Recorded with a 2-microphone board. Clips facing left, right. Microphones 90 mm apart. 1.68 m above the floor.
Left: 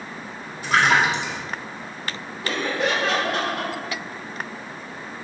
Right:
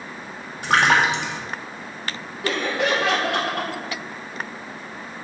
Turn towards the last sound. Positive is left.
turn(degrees=-75)  # may be behind; listen again after turning